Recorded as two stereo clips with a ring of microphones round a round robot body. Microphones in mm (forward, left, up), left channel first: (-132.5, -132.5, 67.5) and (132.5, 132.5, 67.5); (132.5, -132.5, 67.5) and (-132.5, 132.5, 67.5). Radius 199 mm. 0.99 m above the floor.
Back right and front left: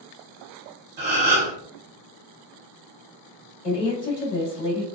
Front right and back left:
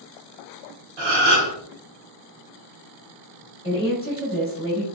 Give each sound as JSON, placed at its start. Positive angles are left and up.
{"t": 1.0, "sound": "a gasp", "azimuth_deg": 110, "distance_m": 1.2}
{"t": 3.6, "sound": "a woman speaking", "azimuth_deg": -110, "distance_m": 1.7}